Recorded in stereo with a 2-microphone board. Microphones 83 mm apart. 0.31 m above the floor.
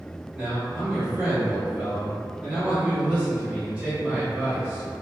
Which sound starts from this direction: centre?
A man speaking, at 0.3 s.